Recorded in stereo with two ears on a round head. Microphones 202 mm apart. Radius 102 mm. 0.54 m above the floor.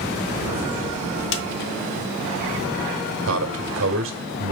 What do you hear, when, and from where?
1.3 s a snare drum: 60° left (ahead or behind), 1.1 m
3.3 s a man speaking: 65° right (ahead or behind), 1.4 m